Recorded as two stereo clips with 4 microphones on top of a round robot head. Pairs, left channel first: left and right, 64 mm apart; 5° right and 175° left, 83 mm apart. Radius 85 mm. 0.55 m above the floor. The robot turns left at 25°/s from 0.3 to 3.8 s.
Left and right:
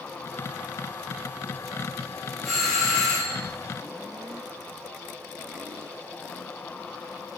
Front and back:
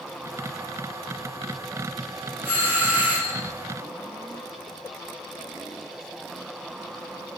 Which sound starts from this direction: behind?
A doorbell, at 2.4 s.